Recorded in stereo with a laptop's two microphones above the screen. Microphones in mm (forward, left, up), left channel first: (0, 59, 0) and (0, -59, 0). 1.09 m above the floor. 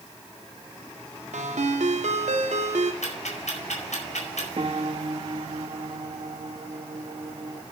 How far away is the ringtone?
About 1.6 m.